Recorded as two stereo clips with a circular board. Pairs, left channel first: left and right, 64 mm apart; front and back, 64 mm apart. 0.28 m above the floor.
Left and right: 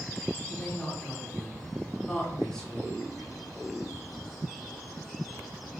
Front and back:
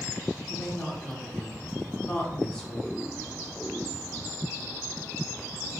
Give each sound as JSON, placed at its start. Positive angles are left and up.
{"t": 0.5, "sound": "a woman speaking", "azimuth_deg": 40, "distance_m": 0.9}